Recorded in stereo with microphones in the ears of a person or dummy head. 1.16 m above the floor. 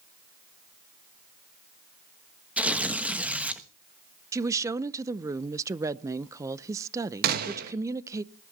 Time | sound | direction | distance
2.6 | tearing paper | 5° right (ahead or behind) | 1.2 m
4.3 | a woman speaking | 15° right (ahead or behind) | 0.6 m
7.2 | a gunshot | 50° right (ahead or behind) | 1.8 m